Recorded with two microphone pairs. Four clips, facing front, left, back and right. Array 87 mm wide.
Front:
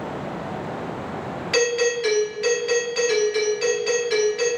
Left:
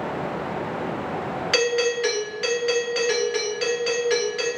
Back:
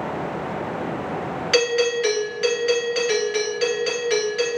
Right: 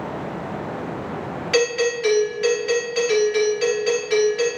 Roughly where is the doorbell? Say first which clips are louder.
Right 2 dB, back 1 dB; behind left.